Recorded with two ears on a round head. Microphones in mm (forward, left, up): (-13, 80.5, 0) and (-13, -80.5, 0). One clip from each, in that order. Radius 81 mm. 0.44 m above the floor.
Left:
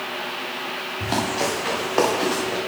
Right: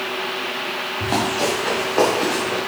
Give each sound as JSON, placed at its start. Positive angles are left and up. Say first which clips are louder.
{"t": 1.0, "sound": "running footsteps", "louder": "right 2 dB", "side_deg": 25, "distance_m": 4.0}